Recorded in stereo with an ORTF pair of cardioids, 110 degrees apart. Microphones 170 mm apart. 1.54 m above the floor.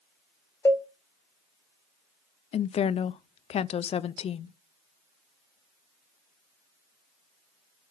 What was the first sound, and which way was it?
A cowbell, 15° left.